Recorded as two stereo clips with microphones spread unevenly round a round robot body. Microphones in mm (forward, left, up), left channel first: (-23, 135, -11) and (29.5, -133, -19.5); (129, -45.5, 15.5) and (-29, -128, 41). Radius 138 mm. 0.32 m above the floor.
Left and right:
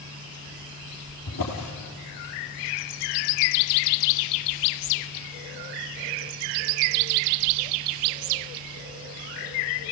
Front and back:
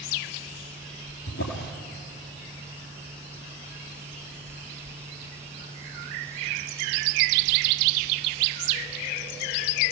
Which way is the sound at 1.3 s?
60° left.